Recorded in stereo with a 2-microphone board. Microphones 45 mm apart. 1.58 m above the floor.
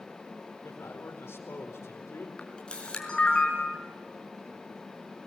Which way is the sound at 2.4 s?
20° left (ahead or behind).